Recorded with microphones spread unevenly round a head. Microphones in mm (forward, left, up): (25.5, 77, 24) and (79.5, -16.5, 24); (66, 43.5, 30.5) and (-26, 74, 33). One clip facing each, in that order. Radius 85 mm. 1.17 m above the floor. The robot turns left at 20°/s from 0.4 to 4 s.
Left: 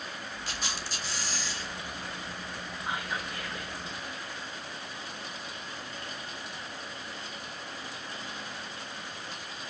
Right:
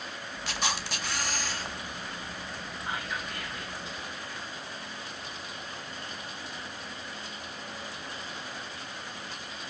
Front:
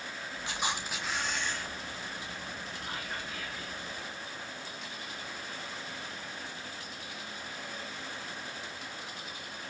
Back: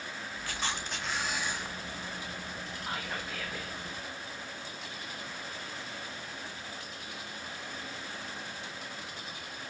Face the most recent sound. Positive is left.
turn(degrees=180)